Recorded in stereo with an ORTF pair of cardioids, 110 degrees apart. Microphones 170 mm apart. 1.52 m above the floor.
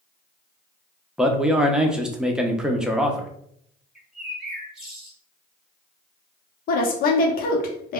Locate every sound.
1.2 s a man speaking: 5° right, 0.6 m
4.0 s a bird: straight ahead, 0.9 m
6.7 s a woman speaking: 60° left, 0.8 m